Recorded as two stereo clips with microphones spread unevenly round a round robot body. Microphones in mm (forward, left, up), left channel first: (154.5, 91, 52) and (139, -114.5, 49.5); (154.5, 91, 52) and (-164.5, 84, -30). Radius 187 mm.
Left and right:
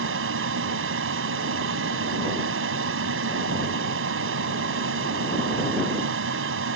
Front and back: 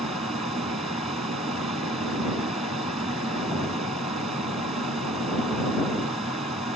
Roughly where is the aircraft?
Right.